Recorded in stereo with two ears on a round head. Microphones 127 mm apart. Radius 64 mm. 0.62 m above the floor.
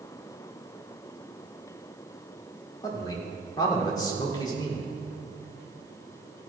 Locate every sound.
2.8 s a man speaking: 30° left (ahead or behind), 1.9 m